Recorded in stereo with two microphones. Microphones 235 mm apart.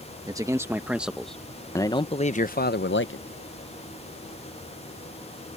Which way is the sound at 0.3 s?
15° right (ahead or behind).